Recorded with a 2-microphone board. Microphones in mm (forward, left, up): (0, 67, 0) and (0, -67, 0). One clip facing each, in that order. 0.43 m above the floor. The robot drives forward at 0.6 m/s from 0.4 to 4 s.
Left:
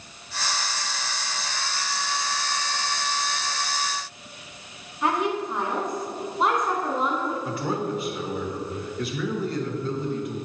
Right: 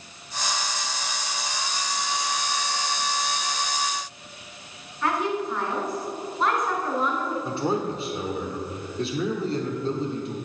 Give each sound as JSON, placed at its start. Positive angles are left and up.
{"t": 5.0, "sound": "a woman speaking", "side_deg": 20, "distance_m": 1.5}
{"t": 7.5, "sound": "a man speaking", "side_deg": -30, "distance_m": 0.8}